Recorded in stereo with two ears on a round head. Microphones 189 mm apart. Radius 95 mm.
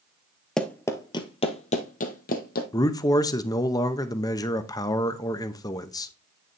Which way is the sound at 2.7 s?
15° left (ahead or behind).